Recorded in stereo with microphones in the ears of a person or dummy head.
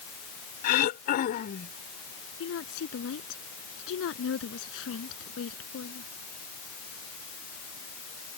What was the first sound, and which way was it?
Throat clearing, 50° left (ahead or behind).